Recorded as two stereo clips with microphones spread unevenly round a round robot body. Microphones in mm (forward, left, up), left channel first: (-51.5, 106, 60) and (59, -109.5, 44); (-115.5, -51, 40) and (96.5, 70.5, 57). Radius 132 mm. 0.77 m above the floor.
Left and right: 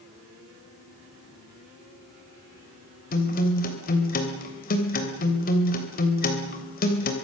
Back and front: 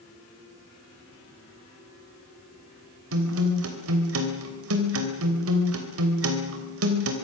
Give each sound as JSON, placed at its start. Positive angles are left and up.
{"t": 3.1, "sound": "a guitar", "azimuth_deg": 60, "distance_m": 3.0}